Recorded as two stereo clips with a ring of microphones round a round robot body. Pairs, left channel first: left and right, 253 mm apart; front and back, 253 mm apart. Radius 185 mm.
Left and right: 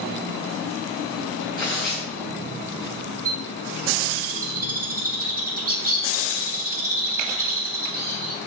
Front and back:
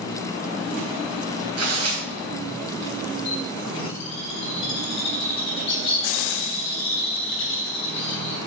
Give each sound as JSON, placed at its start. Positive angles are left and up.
{"t": 1.6, "sound": "tearing paper", "azimuth_deg": 180, "distance_m": 3.0}
{"t": 3.2, "sound": "a bird", "azimuth_deg": -70, "distance_m": 3.0}